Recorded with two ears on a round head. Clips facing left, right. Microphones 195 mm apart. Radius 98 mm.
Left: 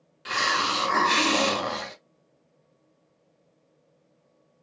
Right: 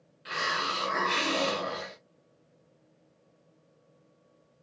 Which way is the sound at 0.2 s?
55° left (ahead or behind).